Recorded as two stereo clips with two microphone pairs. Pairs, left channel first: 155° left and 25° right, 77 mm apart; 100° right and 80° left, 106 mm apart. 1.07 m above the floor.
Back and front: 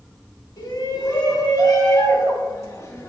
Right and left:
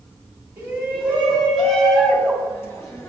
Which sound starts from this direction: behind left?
A shout, at 0.6 s.